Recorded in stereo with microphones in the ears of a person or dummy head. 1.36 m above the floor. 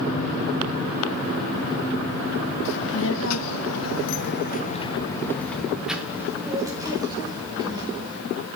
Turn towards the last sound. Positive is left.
turn(degrees=-20)  # may be behind; listen again after turning